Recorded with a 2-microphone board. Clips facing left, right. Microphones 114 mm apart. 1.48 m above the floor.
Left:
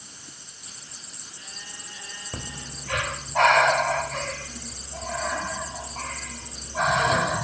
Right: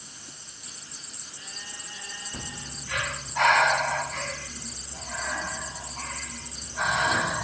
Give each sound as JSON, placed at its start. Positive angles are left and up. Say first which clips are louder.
{"t": 2.3, "sound": "breathing", "louder": "left 4 dB", "side_deg": 75, "distance_m": 3.5}